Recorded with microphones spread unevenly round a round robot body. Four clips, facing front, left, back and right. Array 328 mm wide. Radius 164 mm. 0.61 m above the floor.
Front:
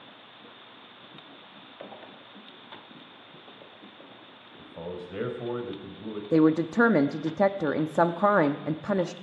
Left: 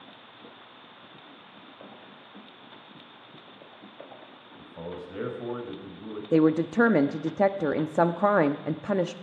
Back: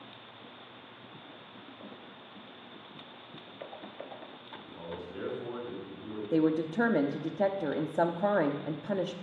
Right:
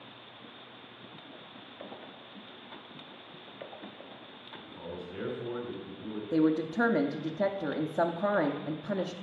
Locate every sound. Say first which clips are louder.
4.6 s a man speaking: left 4 dB, front 5 dB; 25° left, 4 m
6.3 s a woman speaking: left 5 dB, front 6 dB; 45° left, 0.8 m